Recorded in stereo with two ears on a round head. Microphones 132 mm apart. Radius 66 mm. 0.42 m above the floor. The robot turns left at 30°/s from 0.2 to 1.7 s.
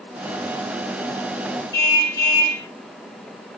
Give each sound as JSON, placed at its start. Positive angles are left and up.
{"t": 1.7, "sound": "a car horn", "side_deg": 20, "distance_m": 7.0}